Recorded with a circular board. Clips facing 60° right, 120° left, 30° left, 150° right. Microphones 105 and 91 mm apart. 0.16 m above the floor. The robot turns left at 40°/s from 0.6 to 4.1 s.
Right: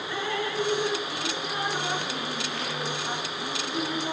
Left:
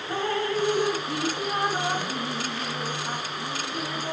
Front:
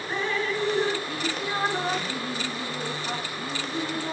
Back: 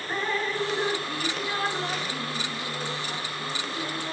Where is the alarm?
No alarm in this recording.